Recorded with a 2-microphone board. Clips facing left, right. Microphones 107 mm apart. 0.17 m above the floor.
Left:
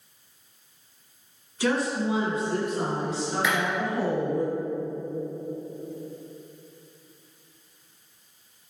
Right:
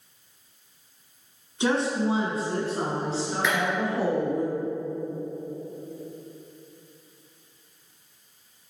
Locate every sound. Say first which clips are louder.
1.6 s a woman speaking: right 1 dB; 25° right (ahead or behind), 1.4 m
3.4 s a clap: even; centre (ahead or behind), 1.7 m